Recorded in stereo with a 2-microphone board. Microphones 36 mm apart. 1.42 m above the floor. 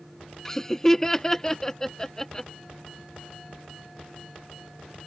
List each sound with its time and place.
0.5 s laughter: 15° left (ahead or behind)